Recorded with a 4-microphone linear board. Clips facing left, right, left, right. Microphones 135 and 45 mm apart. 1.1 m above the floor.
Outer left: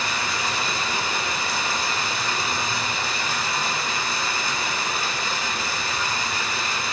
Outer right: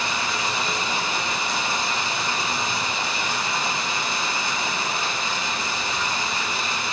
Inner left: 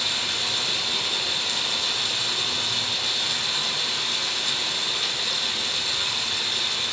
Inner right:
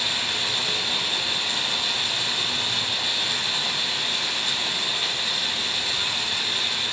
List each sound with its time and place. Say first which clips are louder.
0.0 s running water: outer right 1 dB, inner right 1 dB; 20° right (ahead or behind), 5 m